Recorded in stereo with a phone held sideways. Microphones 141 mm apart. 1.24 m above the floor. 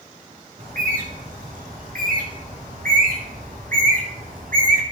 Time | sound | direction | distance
0.6 | a bird | 80° right | 2.5 m